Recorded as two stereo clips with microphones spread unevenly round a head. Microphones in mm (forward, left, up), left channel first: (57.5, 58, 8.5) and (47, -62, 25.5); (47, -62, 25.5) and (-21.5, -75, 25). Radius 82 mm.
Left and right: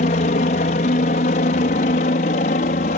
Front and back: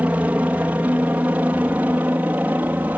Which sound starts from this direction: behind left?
A helicopter, at 0.0 s.